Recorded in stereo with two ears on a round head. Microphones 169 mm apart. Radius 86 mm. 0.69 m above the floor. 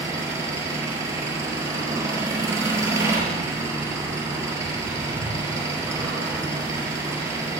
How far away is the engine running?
About 7 m.